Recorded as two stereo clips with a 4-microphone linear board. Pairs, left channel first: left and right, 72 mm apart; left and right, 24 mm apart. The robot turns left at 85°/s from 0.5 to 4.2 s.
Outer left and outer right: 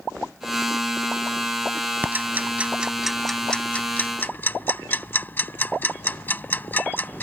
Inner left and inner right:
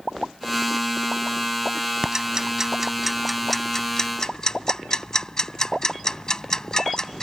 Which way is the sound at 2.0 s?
25° right (ahead or behind).